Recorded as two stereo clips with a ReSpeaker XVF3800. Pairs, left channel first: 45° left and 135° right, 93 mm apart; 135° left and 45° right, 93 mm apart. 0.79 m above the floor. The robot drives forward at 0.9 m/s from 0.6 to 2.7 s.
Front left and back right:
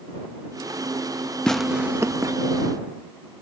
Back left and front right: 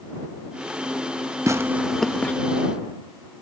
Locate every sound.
1.5 s tearing paper: 30° right, 0.6 m; by 2.3 s 160° right, 0.7 m